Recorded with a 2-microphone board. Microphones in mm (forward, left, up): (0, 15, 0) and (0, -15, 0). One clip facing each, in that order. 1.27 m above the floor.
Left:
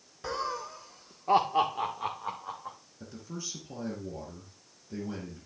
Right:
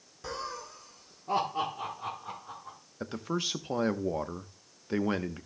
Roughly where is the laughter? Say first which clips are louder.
Left 4 dB; centre.